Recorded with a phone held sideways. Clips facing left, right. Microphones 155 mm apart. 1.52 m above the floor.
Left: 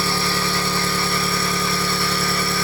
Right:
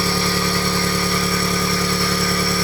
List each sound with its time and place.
0.0 s an engine running: 15° right (ahead or behind), 1.2 m